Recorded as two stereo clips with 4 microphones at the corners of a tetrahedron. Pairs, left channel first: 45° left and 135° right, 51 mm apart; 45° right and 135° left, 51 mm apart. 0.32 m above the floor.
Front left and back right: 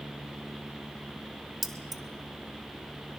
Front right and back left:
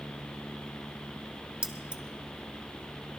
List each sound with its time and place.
1.6 s keys jangling: 135° left, 0.8 m